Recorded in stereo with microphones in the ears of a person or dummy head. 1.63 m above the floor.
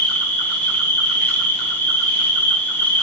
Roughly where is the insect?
Centre.